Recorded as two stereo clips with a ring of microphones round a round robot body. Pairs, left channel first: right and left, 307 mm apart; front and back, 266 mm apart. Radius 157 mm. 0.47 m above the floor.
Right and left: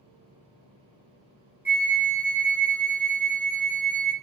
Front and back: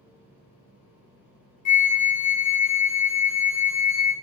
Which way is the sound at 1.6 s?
5° left.